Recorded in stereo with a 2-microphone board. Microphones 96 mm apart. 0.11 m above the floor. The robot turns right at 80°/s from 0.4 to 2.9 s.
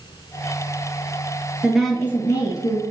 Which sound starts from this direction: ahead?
A woman speaking, at 1.6 s.